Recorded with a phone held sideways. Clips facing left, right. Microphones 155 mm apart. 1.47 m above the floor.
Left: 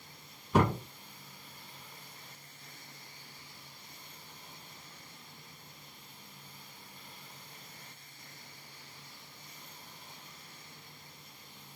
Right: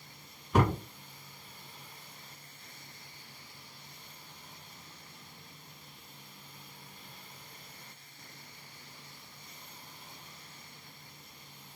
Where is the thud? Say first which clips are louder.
Even; 10° left (ahead or behind), 1.9 m.